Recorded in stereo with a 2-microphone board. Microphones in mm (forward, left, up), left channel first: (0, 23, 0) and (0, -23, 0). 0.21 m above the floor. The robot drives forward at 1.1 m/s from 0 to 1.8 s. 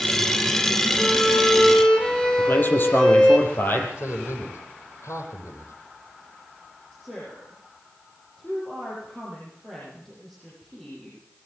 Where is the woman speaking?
5° left (ahead or behind), 9 m.